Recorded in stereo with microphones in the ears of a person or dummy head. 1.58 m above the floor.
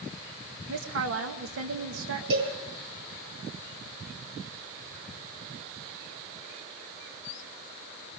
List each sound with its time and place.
0.7 s a woman speaking: 60° right (ahead or behind), 2.0 m
2.3 s a cowbell: 75° right (ahead or behind), 9.5 m